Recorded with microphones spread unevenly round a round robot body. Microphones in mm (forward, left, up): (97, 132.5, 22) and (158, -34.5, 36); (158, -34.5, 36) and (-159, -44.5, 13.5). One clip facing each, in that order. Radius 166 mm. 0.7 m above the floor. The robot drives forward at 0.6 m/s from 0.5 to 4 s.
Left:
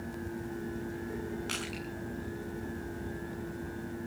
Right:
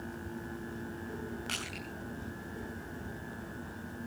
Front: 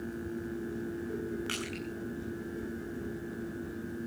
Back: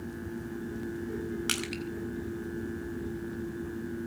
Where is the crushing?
165° right, 4.5 m.